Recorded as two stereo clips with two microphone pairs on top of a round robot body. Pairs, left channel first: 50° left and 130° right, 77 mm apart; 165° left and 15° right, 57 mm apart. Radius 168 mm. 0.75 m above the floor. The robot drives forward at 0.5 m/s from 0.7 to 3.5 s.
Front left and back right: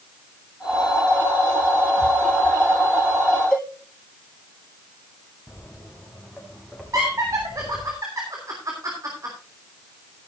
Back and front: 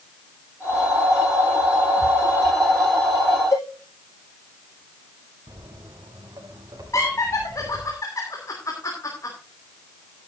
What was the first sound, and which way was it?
A cowbell, 130° left.